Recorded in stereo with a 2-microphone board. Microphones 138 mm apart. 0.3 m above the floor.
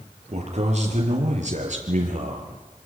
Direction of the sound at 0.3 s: 55° right (ahead or behind).